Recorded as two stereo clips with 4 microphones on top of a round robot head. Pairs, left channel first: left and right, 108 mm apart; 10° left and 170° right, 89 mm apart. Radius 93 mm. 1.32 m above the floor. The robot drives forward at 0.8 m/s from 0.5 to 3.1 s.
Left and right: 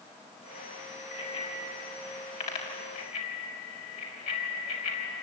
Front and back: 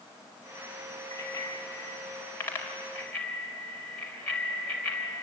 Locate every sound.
1.1 s a bicycle bell: 65° left, 5 m; by 5.2 s 85° left, 4.5 m